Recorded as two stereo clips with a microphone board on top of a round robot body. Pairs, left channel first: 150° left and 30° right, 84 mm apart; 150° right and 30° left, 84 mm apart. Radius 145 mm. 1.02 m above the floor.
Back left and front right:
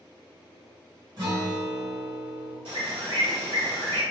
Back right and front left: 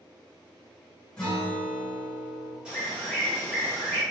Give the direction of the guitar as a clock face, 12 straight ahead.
2 o'clock.